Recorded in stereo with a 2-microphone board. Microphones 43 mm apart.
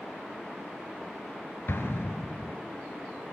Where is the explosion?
60° left (ahead or behind), 3 m.